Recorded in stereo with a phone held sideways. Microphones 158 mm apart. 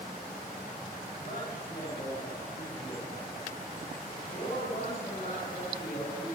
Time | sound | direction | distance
1.2 | a man speaking | 90° left | 9.5 m